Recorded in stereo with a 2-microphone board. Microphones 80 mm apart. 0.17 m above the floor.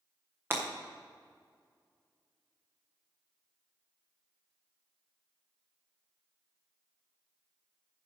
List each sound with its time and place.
0.5 s breaking glass: 30° right (ahead or behind), 3 m